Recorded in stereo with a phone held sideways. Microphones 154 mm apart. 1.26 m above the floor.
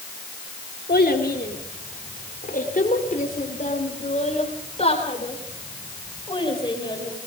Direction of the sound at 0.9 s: 75° left (ahead or behind).